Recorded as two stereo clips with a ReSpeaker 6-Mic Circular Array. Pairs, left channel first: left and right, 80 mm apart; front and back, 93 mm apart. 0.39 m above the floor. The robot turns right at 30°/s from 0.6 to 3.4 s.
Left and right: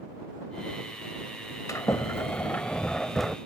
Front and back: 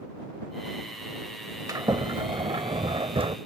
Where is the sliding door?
130° left; by 3.4 s straight behind.